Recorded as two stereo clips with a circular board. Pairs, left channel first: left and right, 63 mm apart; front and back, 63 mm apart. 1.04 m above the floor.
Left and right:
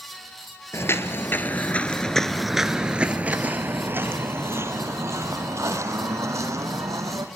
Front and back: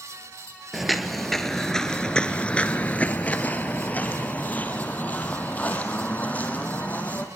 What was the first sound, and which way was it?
Footsteps, 90° left.